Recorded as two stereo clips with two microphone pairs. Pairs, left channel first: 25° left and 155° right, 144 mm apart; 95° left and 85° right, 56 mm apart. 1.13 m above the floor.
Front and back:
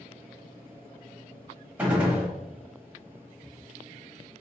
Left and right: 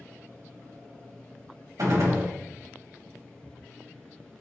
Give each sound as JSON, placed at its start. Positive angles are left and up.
{"t": 1.8, "sound": "a gunshot", "azimuth_deg": -75, "distance_m": 1.2}